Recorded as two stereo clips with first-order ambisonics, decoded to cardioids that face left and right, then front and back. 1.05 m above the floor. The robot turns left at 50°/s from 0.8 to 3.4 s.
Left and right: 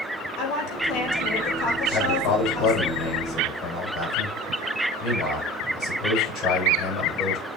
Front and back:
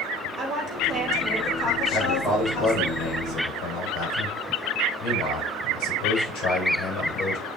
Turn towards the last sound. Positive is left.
turn(degrees=25)